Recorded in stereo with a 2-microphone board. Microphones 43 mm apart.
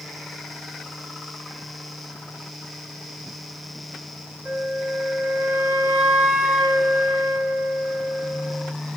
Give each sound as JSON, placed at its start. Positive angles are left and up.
{"t": 4.5, "sound": "a flute", "side_deg": -50, "distance_m": 2.0}